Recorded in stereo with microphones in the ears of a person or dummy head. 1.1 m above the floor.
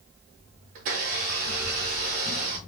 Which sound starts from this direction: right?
A blender, at 0.8 s.